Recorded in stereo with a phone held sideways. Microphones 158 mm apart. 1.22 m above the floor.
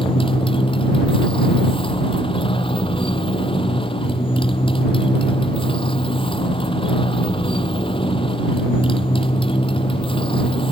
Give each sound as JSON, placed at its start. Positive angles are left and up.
{"t": 0.0, "sound": "a motorcycle", "side_deg": 35}